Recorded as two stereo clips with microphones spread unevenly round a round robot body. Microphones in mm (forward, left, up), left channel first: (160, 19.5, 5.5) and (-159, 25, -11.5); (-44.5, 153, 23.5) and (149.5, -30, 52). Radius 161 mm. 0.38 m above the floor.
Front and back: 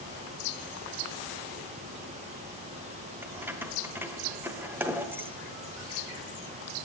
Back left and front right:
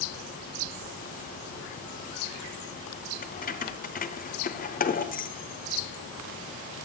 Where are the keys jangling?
100° left, 1.1 m.